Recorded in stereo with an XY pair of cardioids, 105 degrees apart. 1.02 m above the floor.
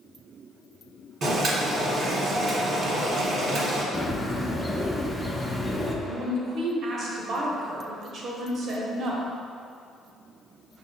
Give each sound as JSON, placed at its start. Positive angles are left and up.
{"t": 1.2, "sound": "boiling", "azimuth_deg": -55, "distance_m": 1.3}
{"t": 3.9, "sound": "a bird", "azimuth_deg": 10, "distance_m": 0.6}
{"t": 6.0, "sound": "a woman speaking", "azimuth_deg": -55, "distance_m": 1.0}